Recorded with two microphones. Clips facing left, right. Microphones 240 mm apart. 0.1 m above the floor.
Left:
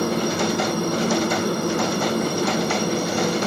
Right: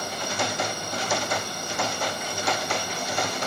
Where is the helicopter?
65° left (ahead or behind).